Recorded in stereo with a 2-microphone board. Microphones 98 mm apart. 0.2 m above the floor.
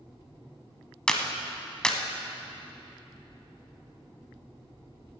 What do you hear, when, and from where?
1.1 s a clap: 10° left (ahead or behind), 1.0 m